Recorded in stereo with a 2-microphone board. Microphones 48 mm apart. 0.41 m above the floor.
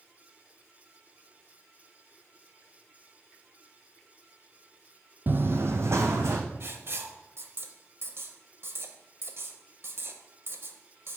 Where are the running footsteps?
40° right (ahead or behind), 0.6 m; by 6.4 s 70° right (ahead or behind), 1.2 m.